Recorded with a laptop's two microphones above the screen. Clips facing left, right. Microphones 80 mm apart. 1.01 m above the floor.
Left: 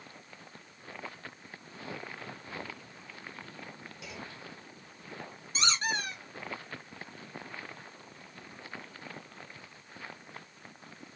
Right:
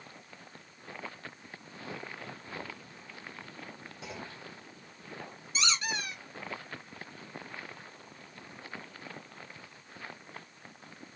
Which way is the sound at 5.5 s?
40° left (ahead or behind).